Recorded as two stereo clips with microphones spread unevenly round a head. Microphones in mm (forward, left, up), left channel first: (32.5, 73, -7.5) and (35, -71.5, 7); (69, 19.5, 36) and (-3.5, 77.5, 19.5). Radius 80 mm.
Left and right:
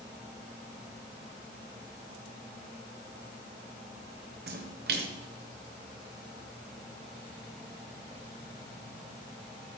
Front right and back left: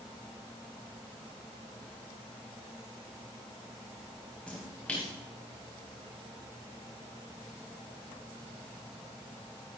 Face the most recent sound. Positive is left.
turn(degrees=-120)